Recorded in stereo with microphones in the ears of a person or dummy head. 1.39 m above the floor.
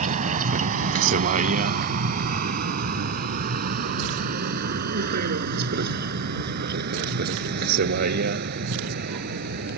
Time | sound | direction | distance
0.0 | a vehicle | 45° right (ahead or behind) | ?